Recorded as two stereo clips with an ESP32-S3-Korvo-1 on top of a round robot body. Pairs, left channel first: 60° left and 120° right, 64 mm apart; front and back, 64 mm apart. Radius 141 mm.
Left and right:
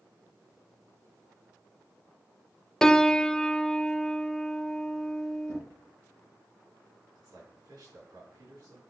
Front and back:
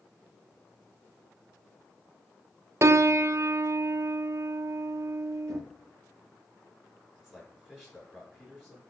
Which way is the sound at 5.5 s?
80° right.